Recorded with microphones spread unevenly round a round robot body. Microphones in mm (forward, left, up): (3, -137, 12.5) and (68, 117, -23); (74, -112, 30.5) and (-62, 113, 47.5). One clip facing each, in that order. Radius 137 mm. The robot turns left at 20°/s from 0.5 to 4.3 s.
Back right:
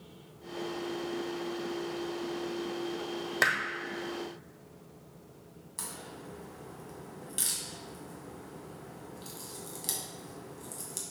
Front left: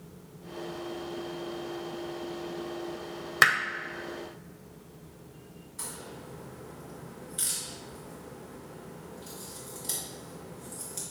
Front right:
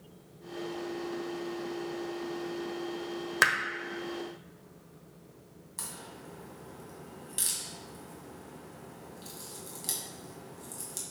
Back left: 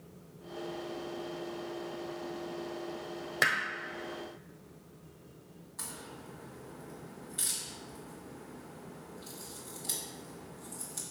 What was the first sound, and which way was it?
Hammering, 10° left.